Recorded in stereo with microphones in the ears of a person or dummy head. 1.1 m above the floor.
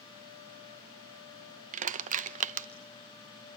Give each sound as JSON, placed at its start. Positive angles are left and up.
{"t": 1.7, "sound": "crushing", "side_deg": -40, "distance_m": 0.6}